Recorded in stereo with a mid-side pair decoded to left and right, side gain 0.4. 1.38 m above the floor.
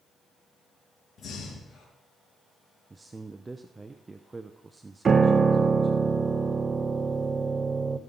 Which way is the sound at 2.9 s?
25° right.